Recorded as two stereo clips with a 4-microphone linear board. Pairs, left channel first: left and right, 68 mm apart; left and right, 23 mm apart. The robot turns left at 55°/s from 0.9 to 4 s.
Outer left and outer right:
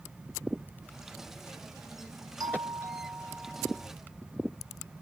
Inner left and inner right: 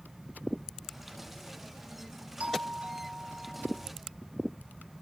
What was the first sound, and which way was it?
A doorbell, 105° right.